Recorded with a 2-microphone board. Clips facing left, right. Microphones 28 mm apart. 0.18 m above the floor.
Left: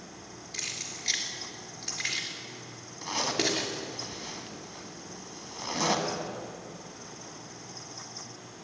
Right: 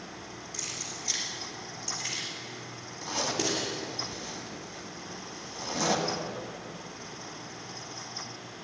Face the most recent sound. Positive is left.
turn(degrees=25)  # may be behind; listen again after turning